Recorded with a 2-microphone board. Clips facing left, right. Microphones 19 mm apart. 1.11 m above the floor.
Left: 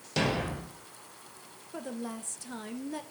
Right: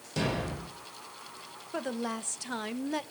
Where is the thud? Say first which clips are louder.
Left 2 dB; 30° left (ahead or behind), 2.5 m.